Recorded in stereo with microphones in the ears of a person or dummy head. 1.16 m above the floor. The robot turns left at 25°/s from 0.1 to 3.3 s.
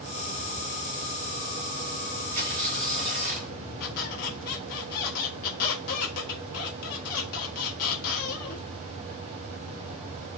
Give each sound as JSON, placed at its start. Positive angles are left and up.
{"t": 2.3, "sound": "tearing paper", "side_deg": -30, "distance_m": 1.0}
{"t": 3.8, "sound": "a squeak", "side_deg": 55, "distance_m": 0.8}